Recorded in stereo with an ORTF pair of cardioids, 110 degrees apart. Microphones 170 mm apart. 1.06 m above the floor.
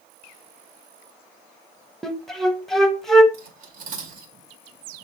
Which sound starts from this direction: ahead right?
Cutlery clinking, at 3.3 s.